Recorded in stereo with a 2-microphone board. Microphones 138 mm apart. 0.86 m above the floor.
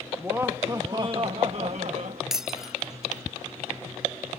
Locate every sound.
0.2 s laughter: 15° right (ahead or behind); by 2.2 s 55° right (ahead or behind)
2.3 s breaking glass: 5° right (ahead or behind)